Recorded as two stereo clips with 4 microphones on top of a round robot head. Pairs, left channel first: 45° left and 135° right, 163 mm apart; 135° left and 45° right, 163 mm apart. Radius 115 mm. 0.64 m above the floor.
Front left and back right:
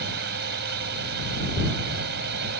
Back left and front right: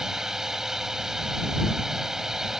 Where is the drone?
130° right.